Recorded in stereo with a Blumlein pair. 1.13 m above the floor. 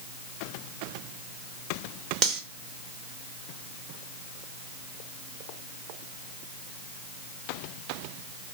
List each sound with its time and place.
2.2 s cutlery clinking: 25° right, 0.8 m